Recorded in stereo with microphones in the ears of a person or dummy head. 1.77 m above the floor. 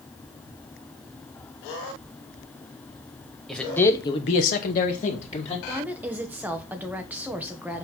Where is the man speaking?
5° left (ahead or behind), 1.6 m; by 5.6 s 35° left (ahead or behind), 2 m.